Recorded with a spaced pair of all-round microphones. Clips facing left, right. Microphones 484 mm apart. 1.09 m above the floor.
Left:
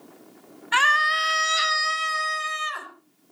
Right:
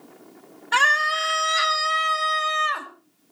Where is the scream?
60° right (ahead or behind), 2.5 m; by 2.9 s 80° right, 2.5 m.